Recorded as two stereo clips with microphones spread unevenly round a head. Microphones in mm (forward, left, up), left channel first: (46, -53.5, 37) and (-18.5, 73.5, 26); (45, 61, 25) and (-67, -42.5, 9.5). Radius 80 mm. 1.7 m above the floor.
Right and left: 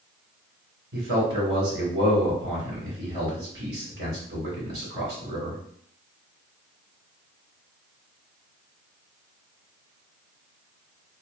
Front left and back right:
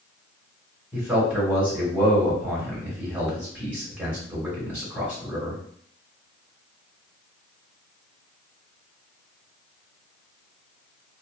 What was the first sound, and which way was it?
A man speaking, 140° left.